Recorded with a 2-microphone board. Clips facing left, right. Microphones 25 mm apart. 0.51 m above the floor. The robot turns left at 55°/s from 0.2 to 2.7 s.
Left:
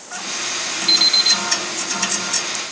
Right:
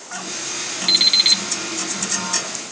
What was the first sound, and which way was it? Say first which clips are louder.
An alarm clock: even; 15° right.